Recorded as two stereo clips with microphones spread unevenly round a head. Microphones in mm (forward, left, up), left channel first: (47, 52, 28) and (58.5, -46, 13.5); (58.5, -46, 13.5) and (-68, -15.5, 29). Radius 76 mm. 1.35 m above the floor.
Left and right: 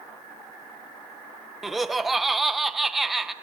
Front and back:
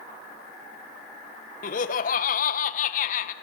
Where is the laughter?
5° left, 1.4 m.